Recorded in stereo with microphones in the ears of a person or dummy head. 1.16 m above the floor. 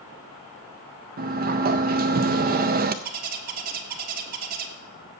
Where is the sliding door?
45° right (ahead or behind), 0.5 m.